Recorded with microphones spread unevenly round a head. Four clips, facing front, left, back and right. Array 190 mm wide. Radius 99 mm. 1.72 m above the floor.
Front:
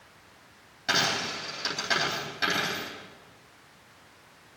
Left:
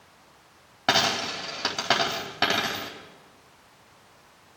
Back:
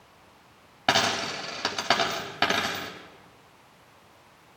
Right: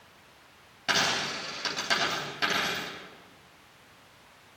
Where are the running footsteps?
I don't hear running footsteps.